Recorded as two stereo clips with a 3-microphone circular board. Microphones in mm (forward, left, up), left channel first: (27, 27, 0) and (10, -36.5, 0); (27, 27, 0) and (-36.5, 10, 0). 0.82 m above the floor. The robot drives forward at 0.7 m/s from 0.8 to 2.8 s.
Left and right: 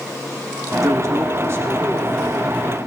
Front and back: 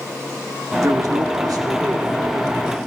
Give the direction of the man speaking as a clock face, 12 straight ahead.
4 o'clock.